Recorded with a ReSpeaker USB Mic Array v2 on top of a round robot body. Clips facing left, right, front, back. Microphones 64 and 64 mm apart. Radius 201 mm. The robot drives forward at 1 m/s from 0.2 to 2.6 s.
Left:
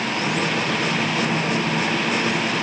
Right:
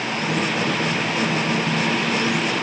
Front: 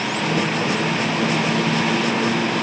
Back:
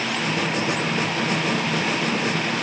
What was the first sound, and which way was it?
Only background noise.